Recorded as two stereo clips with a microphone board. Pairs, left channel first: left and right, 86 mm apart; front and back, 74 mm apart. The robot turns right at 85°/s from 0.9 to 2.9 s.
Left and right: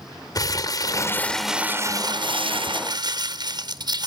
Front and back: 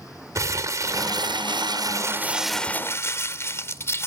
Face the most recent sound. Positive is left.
turn(degrees=-55)